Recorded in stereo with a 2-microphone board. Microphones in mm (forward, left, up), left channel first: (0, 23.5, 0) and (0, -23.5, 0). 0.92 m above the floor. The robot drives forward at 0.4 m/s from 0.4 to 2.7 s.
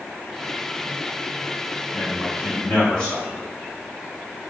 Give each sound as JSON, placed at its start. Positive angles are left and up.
{"t": 1.9, "sound": "a man speaking", "side_deg": 15, "distance_m": 3.5}